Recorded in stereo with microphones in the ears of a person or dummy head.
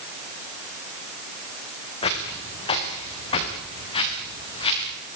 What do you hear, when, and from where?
2.0 s footsteps: 30° left (ahead or behind), 7 m